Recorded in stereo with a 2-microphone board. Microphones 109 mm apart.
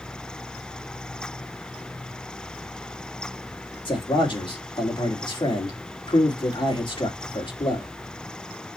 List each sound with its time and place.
3.9 s a man speaking: 50° left (ahead or behind), 2 m